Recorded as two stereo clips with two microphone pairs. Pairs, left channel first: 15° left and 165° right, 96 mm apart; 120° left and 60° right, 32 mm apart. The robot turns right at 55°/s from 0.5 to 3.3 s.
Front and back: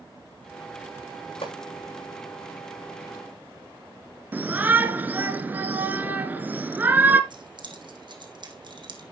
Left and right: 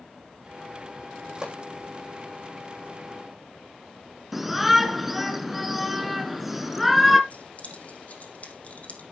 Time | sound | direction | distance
1.4 | a pop | 5° left | 8 m
4.3 | a shout | 140° right | 1.2 m
7.3 | keys jangling | 160° left | 4 m